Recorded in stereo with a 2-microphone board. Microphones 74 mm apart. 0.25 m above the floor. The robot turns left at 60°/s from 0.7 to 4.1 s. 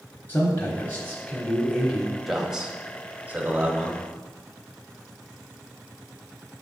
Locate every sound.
0.3 s a man speaking: 70° left, 1.2 m; by 2.1 s 15° right, 1.2 m
2.3 s a man speaking: 5° right (ahead or behind), 1.0 m; by 4.0 s 20° right (ahead or behind), 1.0 m